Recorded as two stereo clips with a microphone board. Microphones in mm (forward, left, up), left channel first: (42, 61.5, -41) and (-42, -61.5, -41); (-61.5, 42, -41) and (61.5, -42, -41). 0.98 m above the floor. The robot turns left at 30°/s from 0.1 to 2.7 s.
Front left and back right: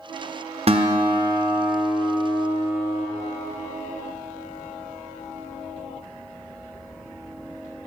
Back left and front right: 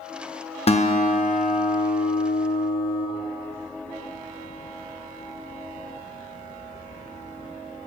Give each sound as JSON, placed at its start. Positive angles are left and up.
{"t": 0.7, "sound": "a guitar", "azimuth_deg": -170, "distance_m": 0.6}